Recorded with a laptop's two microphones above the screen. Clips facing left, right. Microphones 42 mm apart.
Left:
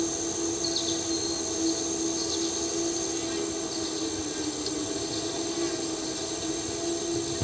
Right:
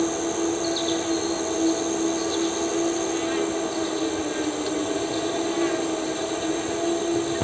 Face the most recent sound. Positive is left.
turn(degrees=-40)  # may be behind; listen again after turning